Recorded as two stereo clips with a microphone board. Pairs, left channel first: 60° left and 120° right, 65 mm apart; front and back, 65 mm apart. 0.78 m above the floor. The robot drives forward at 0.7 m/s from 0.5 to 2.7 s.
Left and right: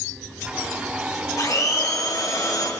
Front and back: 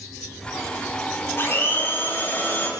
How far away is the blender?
About 4.5 m.